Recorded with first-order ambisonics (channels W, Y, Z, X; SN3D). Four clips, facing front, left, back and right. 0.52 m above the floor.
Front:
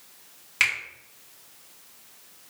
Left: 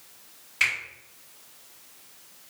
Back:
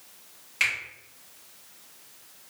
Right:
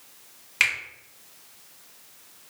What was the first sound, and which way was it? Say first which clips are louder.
A finger snap: right 2 dB, front 2 dB; 55° right.